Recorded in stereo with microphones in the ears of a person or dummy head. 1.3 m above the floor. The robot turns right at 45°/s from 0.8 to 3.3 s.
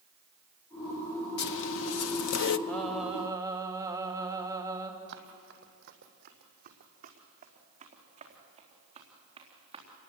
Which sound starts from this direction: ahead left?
A zipper, at 1.4 s.